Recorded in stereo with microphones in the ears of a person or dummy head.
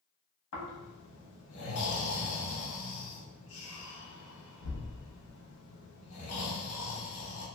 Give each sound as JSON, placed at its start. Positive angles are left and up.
{"t": 0.5, "sound": "snoring", "side_deg": 70, "distance_m": 1.0}